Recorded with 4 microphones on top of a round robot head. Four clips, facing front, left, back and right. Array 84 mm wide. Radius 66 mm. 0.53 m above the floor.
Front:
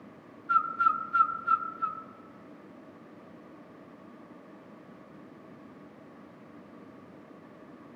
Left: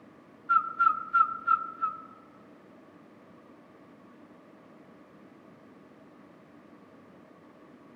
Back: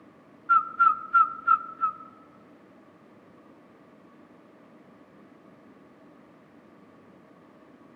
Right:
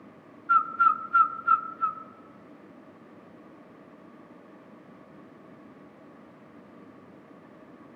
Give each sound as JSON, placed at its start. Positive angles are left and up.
{"t": 0.5, "sound": "a bird", "azimuth_deg": -145, "distance_m": 0.8}